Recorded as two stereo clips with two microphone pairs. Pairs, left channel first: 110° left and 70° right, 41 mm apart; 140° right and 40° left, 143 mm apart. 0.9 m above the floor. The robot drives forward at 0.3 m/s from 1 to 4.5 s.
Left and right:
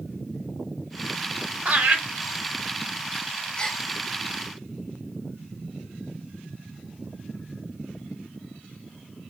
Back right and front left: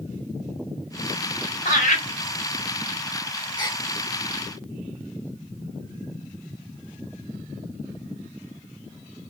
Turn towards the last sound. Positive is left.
turn(degrees=175)